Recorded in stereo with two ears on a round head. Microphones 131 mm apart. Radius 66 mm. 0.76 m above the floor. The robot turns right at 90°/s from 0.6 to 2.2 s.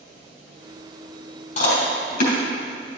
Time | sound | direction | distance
1.6 | chewing | 45° left (ahead or behind) | 3.5 m